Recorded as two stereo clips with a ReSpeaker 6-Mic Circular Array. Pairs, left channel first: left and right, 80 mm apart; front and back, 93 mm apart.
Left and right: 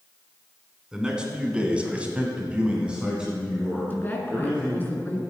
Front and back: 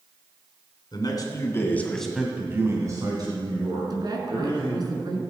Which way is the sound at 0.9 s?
15° right.